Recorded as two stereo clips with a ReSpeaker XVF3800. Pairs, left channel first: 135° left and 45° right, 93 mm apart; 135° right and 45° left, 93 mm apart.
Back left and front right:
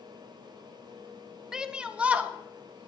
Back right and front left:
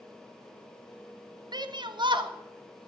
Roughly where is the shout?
Ahead left.